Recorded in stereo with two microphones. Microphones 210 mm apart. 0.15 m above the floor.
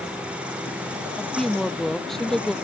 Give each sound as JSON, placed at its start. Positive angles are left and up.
{"t": 1.2, "sound": "a woman speaking", "side_deg": 0}